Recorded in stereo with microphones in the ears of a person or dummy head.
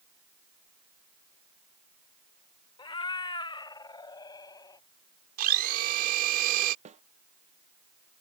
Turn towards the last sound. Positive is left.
turn(degrees=-35)  # may be behind; listen again after turning